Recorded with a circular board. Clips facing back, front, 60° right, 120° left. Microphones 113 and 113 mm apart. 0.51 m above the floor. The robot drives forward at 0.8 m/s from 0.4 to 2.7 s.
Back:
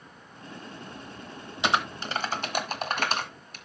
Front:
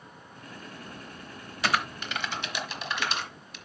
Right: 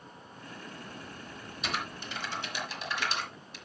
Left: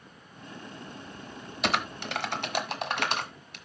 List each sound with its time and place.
1.6 s typing on a keyboard: 110° left, 0.9 m; by 3.5 s 145° left, 1.5 m